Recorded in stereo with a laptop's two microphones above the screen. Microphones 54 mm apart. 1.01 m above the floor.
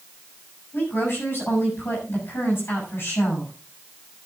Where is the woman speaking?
45° left (ahead or behind), 7 m.